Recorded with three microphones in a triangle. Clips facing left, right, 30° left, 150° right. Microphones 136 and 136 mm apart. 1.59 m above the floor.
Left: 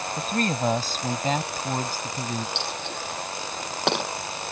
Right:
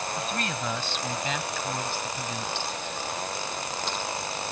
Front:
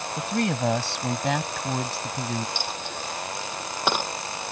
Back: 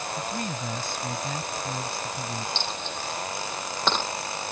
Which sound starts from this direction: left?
A dropped coin, at 2.5 s.